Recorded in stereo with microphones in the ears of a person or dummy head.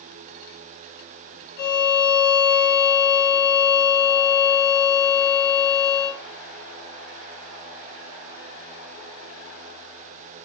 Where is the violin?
55° left (ahead or behind), 1.2 m.